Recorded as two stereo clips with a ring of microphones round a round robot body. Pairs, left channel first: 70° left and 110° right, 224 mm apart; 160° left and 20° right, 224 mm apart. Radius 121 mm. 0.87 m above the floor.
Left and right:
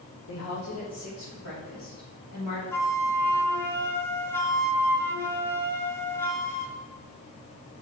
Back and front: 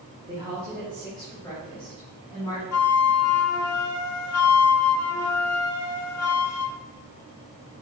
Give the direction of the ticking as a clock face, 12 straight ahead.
I don't hear ticking.